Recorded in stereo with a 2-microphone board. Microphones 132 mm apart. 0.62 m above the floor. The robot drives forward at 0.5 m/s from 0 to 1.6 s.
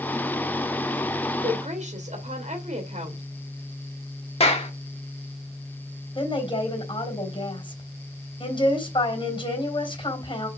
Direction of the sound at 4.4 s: 45° left (ahead or behind).